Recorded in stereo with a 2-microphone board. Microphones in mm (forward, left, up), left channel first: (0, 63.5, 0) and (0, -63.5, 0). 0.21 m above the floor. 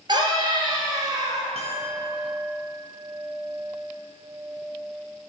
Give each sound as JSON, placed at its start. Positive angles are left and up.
{"t": 0.1, "sound": "a scream", "side_deg": -35, "distance_m": 3.5}
{"t": 1.6, "sound": "a clink", "side_deg": -55, "distance_m": 1.8}